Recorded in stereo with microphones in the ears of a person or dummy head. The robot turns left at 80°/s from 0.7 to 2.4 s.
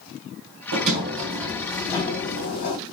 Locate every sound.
0.7 s a sliding door: 100° right, 3 m; by 2.8 s 125° left, 3 m